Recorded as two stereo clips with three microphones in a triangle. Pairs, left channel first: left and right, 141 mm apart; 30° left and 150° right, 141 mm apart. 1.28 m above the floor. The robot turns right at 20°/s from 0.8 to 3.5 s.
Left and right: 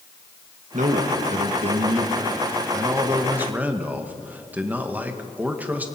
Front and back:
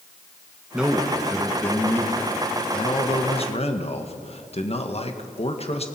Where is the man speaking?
65° right, 1.7 m; by 5.9 s 10° right, 1.7 m.